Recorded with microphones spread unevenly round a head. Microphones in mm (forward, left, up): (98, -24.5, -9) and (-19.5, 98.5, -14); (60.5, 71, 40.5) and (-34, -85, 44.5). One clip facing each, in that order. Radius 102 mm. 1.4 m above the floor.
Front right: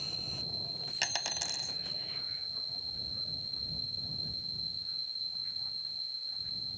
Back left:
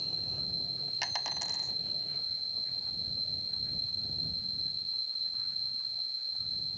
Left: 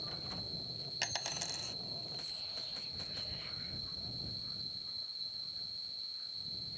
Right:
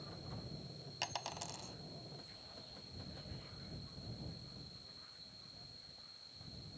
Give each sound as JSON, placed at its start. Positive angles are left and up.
{"t": 0.0, "sound": "an insect", "azimuth_deg": 105}
{"t": 1.0, "sound": "a dropped coin", "azimuth_deg": -10}